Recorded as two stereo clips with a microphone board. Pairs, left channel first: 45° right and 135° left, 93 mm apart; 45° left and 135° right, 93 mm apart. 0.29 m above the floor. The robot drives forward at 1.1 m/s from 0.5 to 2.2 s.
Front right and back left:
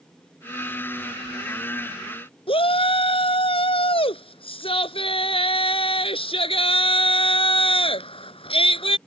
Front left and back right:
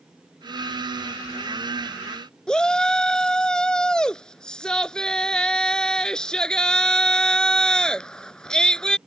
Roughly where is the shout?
Ahead right.